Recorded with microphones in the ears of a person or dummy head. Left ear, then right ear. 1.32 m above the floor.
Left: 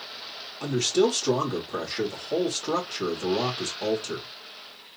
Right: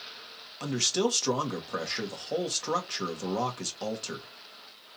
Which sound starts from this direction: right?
A man speaking, at 0.6 s.